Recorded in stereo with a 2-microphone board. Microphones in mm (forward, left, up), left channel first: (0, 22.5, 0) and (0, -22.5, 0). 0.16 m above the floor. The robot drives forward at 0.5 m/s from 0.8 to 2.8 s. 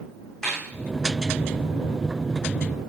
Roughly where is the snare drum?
Centre.